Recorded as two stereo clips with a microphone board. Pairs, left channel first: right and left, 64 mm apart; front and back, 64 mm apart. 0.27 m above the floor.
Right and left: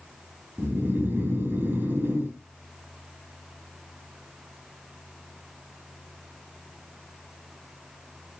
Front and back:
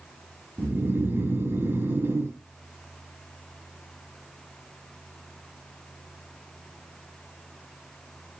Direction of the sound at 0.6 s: 140° left.